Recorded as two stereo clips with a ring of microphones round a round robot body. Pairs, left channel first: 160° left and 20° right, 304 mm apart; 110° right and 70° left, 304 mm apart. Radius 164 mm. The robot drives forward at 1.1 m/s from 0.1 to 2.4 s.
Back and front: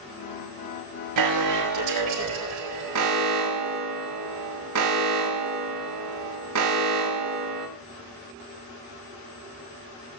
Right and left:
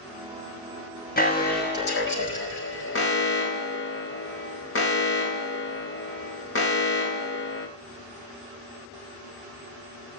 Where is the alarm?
50° right, 6.5 m; by 7.7 s 60° right, 5.5 m.